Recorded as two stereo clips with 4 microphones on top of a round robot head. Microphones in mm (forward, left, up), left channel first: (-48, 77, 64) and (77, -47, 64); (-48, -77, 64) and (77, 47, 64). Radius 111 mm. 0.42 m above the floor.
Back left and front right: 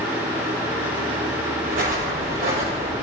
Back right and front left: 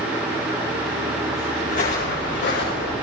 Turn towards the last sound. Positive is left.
turn(degrees=-105)